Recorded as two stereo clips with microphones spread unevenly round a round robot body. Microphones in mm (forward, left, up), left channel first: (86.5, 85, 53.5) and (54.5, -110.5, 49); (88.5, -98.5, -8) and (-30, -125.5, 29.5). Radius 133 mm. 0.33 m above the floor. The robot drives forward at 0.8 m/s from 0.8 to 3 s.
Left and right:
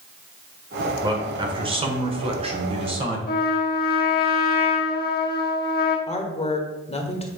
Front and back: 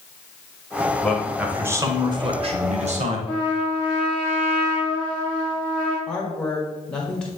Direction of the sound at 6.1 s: 60° left.